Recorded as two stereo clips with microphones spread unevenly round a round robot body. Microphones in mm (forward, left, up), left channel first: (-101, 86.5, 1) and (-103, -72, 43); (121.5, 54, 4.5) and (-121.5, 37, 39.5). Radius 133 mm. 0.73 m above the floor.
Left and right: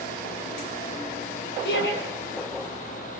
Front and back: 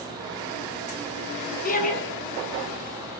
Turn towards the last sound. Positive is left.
turn(degrees=60)